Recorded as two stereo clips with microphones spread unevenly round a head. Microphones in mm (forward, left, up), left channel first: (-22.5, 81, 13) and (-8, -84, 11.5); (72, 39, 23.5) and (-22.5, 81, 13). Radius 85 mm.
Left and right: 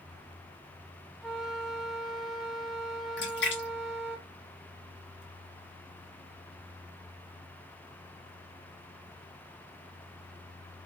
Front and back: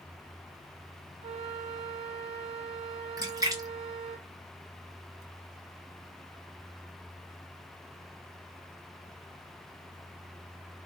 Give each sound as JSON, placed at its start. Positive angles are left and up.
{"t": 1.2, "sound": "a flute", "azimuth_deg": -175, "distance_m": 0.6}
{"t": 3.2, "sound": "a splash", "azimuth_deg": 105, "distance_m": 1.3}